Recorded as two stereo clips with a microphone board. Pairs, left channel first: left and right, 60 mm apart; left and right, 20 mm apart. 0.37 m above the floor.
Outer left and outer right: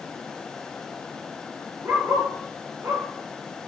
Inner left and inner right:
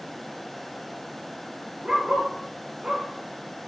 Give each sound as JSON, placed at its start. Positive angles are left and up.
{"t": 1.8, "sound": "a dog barking", "side_deg": -45, "distance_m": 2.5}